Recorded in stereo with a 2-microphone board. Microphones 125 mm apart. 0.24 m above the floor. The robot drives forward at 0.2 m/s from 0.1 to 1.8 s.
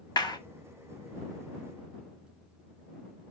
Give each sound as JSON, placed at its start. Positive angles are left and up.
{"t": 0.2, "sound": "a clap", "side_deg": 35, "distance_m": 1.6}